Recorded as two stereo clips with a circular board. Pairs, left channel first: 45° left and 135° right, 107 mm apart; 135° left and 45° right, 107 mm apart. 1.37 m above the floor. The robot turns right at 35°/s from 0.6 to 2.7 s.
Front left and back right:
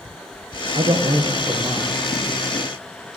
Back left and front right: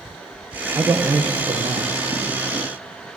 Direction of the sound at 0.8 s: 110° right.